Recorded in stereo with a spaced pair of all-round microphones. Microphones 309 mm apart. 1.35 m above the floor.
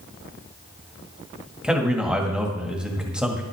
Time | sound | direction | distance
1.6 | a man speaking | 5° right (ahead or behind) | 2 m